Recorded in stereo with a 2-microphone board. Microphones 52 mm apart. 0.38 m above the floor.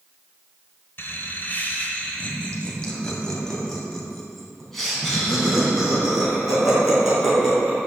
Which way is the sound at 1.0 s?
40° left (ahead or behind).